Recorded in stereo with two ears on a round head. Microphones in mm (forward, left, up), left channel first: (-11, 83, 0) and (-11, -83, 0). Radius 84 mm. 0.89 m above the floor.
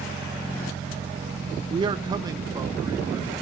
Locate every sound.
1.7 s a man speaking: 25° right (ahead or behind), 0.6 m; by 3.3 s 20° right (ahead or behind), 2.0 m